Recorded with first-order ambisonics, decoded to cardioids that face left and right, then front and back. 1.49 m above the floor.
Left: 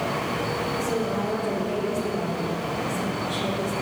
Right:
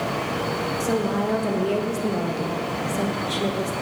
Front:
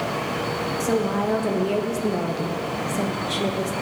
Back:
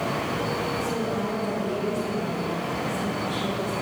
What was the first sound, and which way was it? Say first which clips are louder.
A woman speaking: right 2 dB, front 4 dB; 35° right.